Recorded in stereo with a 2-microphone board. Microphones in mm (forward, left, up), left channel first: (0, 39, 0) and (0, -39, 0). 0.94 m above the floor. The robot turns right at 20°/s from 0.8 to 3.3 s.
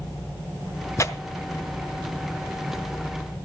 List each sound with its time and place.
1.0 s tearing paper: 40° left (ahead or behind), 0.9 m